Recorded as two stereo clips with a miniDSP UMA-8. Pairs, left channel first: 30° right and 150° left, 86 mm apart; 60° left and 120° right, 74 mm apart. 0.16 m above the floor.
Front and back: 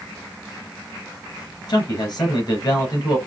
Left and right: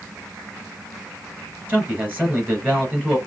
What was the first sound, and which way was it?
A man speaking, 55° right.